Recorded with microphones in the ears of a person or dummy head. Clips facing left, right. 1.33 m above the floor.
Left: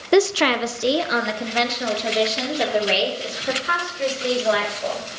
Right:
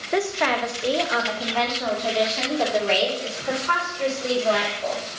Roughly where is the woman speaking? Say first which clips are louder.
Left 6 dB; left.